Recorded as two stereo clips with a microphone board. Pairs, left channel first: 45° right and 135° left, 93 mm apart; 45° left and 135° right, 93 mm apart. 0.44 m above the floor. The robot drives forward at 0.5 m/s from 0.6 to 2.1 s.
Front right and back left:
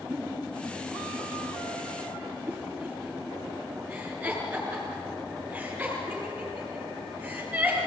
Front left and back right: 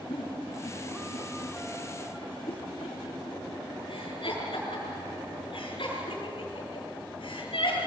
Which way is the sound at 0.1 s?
60° left.